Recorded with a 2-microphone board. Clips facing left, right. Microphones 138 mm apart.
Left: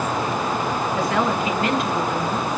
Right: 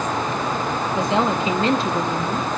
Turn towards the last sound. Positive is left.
turn(degrees=-40)  # may be behind; listen again after turning